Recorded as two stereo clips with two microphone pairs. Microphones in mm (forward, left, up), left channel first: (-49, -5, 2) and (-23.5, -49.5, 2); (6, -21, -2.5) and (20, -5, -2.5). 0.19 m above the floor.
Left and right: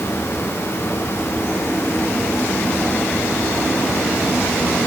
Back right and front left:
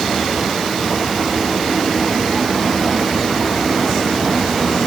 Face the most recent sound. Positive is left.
No sound to turn to.